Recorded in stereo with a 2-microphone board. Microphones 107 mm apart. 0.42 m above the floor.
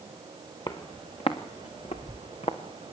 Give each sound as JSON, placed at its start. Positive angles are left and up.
{"t": 0.7, "sound": "footsteps", "side_deg": 45, "distance_m": 2.5}